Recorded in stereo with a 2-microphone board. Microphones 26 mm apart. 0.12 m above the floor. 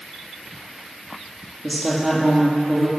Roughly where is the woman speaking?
Centre.